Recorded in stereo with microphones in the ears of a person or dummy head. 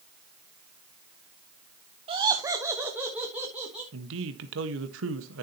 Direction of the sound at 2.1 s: 30° right (ahead or behind).